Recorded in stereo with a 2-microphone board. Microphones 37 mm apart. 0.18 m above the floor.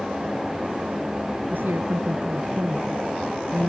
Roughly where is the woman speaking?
Right.